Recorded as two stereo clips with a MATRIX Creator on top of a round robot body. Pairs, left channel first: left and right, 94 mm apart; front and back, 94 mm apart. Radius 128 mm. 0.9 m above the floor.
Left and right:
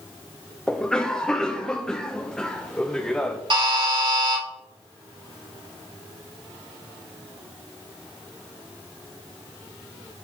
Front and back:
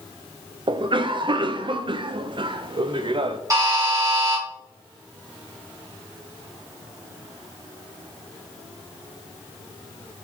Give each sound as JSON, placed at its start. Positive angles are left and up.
{"t": 0.7, "sound": "a cough", "azimuth_deg": 170, "distance_m": 0.5}
{"t": 3.5, "sound": "a buzzer", "azimuth_deg": -125, "distance_m": 3.0}